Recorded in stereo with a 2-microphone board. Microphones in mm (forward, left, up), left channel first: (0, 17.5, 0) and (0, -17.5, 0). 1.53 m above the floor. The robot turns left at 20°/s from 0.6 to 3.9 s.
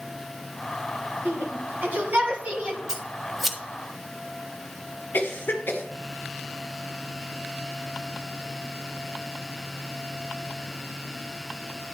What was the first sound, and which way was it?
A shout, 70° right (ahead or behind).